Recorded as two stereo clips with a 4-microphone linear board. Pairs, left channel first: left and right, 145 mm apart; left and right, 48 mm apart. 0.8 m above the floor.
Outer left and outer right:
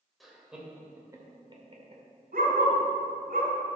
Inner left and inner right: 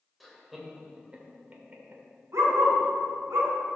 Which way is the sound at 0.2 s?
Centre (ahead or behind).